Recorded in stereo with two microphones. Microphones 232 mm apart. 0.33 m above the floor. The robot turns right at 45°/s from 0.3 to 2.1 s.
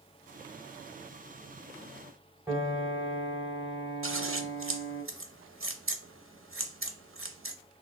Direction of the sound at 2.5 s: 10° right (ahead or behind).